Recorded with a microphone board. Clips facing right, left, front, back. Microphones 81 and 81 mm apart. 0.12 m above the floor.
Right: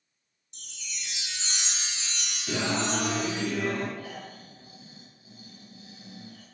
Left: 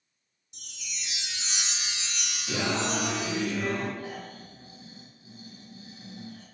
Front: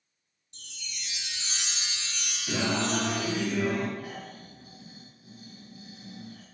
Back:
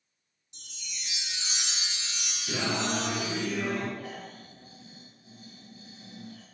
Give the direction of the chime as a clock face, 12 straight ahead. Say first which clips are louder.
Even, front 2 dB; 7 o'clock.